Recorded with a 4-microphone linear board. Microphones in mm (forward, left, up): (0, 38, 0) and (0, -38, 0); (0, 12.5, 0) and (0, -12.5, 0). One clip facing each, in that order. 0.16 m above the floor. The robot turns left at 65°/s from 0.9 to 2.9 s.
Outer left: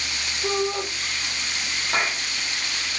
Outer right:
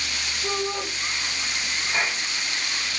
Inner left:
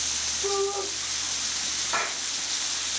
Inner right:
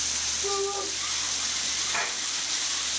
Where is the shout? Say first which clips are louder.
Outer left 4 dB, inner left 3 dB; 25° left (ahead or behind), 8.5 m.